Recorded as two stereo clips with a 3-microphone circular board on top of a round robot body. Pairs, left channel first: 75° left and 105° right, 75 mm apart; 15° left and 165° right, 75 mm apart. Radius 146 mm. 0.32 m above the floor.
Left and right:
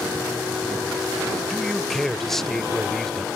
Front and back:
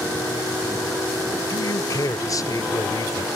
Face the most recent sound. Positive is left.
turn(degrees=-10)